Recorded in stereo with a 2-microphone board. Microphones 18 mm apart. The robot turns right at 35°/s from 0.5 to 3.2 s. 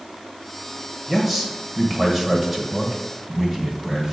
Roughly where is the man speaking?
Centre.